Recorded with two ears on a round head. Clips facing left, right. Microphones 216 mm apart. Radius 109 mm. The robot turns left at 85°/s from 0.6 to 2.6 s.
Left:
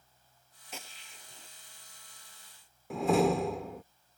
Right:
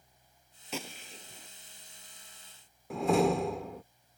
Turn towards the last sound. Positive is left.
turn(degrees=0)  # may be behind; listen again after turning